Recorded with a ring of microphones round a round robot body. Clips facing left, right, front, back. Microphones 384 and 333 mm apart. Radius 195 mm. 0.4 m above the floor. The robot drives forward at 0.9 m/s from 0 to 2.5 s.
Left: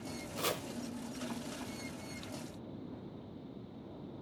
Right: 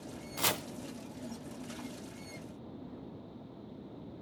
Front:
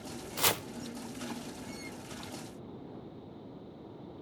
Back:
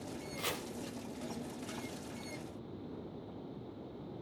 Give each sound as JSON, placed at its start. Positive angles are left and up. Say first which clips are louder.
{"t": 0.4, "sound": "chopping", "louder": "even, front 8 dB", "azimuth_deg": -20, "distance_m": 0.7}